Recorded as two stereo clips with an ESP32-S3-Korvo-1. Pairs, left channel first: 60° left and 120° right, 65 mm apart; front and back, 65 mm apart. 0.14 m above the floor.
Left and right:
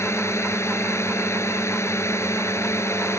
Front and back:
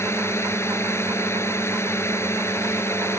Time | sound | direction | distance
0.0 | a drone | 35° left | ?